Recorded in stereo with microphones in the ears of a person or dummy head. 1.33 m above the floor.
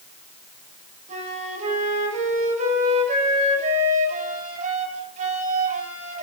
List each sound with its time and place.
1.1 s a flute: 40° right (ahead or behind), 5.5 m